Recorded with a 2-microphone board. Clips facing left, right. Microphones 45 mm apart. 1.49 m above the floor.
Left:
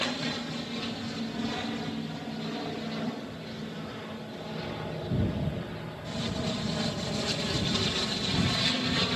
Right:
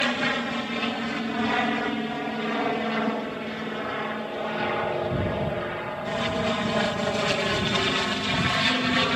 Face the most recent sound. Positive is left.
turn(degrees=-35)  # may be behind; listen again after turning